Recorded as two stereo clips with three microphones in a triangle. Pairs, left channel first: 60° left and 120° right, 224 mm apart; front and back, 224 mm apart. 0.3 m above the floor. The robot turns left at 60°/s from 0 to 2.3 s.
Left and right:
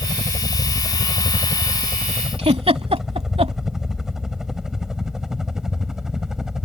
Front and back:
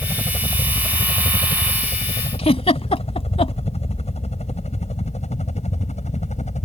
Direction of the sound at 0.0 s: 105° left.